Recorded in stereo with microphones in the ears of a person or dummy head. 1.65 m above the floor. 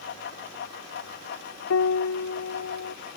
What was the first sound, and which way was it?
A fan, 55° left (ahead or behind).